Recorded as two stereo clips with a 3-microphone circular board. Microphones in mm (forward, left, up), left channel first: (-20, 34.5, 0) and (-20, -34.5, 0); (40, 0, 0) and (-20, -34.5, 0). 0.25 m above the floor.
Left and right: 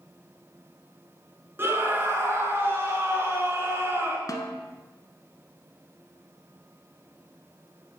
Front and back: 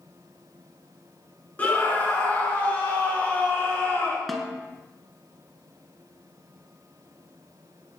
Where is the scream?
35° right, 2.5 m.